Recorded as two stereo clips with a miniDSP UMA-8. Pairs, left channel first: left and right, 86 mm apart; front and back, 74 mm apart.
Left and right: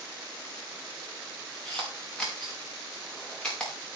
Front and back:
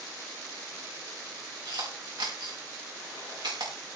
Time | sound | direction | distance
1.6 | a camera shutter | 170° left | 6 m